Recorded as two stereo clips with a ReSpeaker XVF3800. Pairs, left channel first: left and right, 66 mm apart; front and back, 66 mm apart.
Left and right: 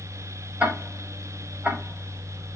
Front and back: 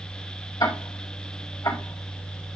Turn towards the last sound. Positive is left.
turn(degrees=-20)